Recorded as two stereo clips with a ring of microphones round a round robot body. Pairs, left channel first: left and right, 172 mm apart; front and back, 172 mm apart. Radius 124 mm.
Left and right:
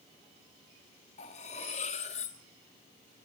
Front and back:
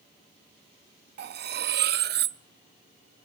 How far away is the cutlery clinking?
About 0.5 m.